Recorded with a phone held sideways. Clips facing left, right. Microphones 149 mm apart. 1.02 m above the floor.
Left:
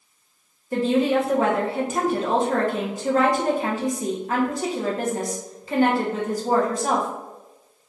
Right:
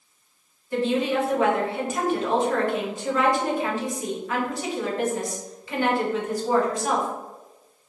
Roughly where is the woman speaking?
Left.